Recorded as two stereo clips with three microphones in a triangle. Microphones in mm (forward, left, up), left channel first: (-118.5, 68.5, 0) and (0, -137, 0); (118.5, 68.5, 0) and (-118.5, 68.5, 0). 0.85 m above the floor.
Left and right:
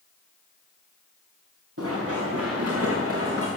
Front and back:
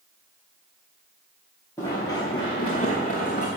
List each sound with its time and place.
1.8 s running footsteps: 80° right, 4 m; by 3.5 s 50° right, 3.5 m